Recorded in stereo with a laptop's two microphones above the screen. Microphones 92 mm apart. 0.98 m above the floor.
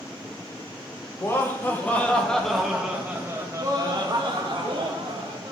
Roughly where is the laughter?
Left.